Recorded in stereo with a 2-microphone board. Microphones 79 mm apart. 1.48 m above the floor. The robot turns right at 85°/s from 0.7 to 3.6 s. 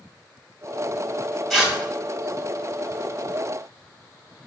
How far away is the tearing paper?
About 3.5 m.